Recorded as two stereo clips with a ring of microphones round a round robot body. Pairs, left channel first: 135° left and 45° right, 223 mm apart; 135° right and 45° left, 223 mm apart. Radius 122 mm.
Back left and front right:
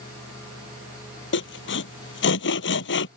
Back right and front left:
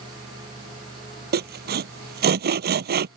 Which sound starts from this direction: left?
Sawing, at 1.3 s.